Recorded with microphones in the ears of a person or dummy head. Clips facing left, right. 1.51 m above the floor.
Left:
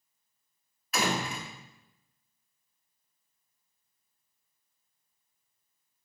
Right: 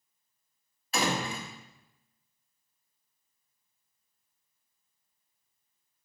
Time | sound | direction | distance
0.9 | a door slam | 25° right (ahead or behind) | 2.0 m